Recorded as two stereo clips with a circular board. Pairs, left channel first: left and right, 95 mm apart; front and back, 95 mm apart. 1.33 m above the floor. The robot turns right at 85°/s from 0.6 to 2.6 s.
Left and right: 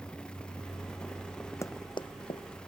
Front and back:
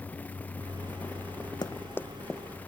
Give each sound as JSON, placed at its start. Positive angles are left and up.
{"t": 1.6, "sound": "running footsteps", "azimuth_deg": 35}